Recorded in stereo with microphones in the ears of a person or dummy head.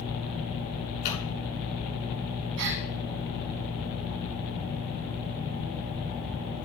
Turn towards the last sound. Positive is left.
turn(degrees=-80)